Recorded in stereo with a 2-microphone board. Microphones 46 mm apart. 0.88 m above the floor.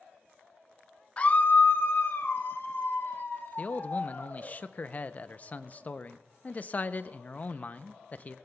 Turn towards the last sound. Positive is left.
turn(degrees=35)  # may be behind; listen again after turning